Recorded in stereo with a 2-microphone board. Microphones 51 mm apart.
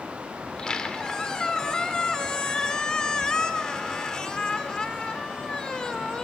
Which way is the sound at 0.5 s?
15° left (ahead or behind).